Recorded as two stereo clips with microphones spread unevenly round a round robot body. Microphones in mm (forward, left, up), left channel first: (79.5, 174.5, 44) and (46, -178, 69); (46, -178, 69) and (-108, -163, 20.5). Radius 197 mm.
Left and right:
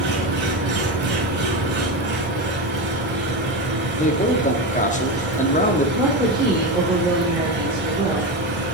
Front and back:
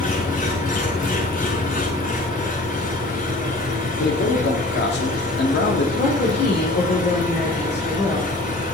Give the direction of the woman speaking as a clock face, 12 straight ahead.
1 o'clock.